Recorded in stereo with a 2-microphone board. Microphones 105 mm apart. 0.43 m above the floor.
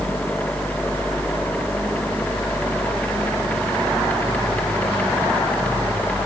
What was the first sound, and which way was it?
Only background noise.